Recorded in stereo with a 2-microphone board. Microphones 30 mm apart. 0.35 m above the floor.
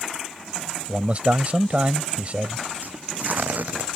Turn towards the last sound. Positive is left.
turn(degrees=-60)  # may be behind; listen again after turning